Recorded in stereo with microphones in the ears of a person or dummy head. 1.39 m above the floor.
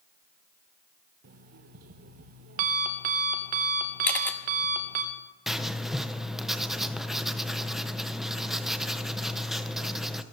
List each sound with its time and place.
1.2 s an alarm clock: 35° right (ahead or behind), 0.6 m
4.0 s a camera shutter: 10° left (ahead or behind), 1.1 m
5.5 s writing: 5° right (ahead or behind), 0.7 m